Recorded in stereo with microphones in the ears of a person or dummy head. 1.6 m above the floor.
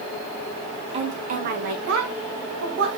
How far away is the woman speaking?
About 1.7 m.